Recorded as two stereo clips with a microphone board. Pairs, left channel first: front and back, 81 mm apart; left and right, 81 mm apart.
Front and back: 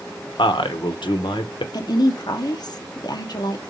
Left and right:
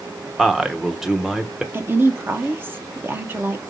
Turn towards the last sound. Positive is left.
turn(degrees=-25)